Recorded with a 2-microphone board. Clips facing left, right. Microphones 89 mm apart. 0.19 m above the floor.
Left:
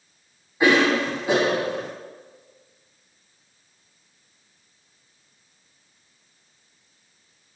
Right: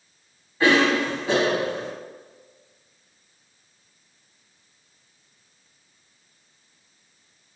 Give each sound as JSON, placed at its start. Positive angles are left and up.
{"t": 0.6, "sound": "a cough", "side_deg": 15, "distance_m": 1.2}